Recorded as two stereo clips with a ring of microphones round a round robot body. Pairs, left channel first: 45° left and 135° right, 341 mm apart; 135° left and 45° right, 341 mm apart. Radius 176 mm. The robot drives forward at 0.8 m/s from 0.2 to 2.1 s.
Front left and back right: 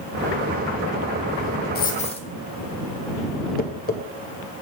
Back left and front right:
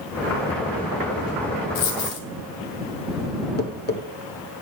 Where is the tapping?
95° left, 1.5 m.